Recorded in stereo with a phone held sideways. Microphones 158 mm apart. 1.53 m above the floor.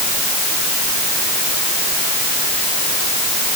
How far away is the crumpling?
No crumpling in this recording.